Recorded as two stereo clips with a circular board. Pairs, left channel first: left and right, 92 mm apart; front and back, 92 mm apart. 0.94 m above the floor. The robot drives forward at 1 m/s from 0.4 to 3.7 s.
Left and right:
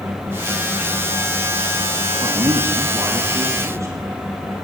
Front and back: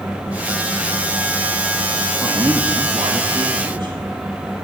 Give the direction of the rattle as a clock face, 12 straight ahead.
No rattle in this recording.